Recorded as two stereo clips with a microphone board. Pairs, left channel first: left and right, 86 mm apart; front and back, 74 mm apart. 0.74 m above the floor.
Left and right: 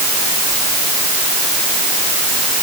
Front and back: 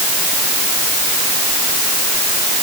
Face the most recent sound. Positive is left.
No sound to turn to.